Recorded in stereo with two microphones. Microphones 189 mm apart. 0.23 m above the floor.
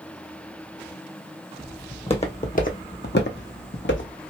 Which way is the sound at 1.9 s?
25° left (ahead or behind).